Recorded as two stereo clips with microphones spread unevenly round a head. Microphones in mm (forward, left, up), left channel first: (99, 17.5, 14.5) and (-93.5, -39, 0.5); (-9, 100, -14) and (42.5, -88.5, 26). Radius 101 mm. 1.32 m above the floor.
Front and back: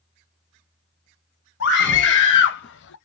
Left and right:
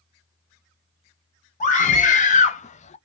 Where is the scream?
55° left, 1.6 m.